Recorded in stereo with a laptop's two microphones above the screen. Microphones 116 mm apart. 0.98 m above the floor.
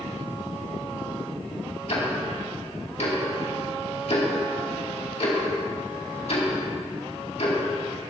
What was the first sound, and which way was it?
Ticking, 70° left (ahead or behind).